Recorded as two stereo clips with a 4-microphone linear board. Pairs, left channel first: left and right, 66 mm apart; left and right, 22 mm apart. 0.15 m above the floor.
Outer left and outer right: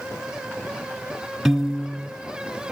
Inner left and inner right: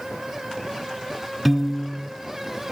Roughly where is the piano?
Centre.